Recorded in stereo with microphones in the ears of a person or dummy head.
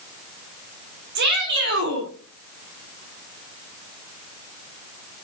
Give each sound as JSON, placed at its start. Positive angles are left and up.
{"t": 1.1, "sound": "a shout", "side_deg": -60, "distance_m": 3.5}